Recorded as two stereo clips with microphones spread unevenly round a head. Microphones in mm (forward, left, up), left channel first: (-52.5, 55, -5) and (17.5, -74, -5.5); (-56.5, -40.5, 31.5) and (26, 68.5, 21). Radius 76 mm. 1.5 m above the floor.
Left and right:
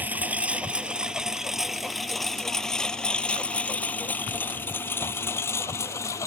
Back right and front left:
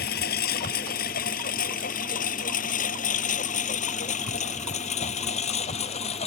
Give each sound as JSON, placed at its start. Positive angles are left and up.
{"t": 0.0, "sound": "a lawn mower", "azimuth_deg": -140}